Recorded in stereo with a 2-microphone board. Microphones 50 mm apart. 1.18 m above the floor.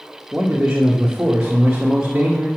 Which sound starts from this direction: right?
A man speaking, at 0.3 s.